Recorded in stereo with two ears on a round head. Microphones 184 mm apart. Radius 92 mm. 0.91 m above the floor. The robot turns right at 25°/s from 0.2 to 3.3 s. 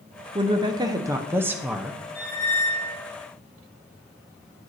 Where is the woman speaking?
50° right, 0.6 m; by 2.0 s 5° right, 0.6 m.